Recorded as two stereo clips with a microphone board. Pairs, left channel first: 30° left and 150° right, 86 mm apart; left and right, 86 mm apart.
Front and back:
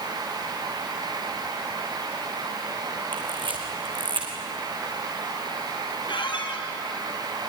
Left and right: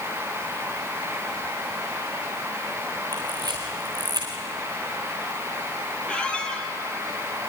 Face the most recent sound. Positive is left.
turn(degrees=15)